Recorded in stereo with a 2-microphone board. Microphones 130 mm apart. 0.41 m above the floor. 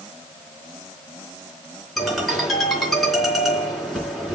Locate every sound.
2.0 s a ringtone: centre (ahead or behind), 4 m